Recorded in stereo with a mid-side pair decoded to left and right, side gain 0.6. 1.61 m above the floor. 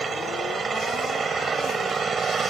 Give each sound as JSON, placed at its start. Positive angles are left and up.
{"t": 0.0, "sound": "an engine running", "azimuth_deg": -30}